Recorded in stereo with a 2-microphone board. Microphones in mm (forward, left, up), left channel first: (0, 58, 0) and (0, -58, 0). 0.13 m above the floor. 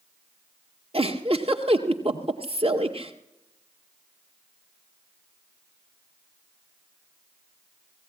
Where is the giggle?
50° right (ahead or behind), 1.9 m.